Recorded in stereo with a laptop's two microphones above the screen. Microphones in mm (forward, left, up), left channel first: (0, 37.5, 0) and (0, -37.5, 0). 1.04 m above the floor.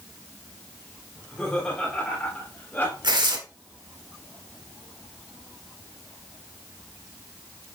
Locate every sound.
1.1 s laughter: 10° left (ahead or behind), 4.5 m; by 2.9 s 25° left (ahead or behind), 3.5 m
3.0 s tearing paper: 75° right (ahead or behind), 1.7 m